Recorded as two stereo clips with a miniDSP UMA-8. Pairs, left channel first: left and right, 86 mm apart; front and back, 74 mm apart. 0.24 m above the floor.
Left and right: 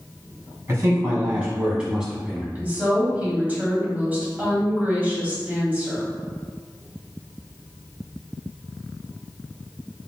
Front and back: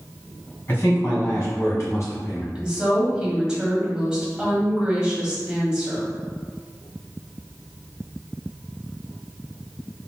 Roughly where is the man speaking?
Ahead right.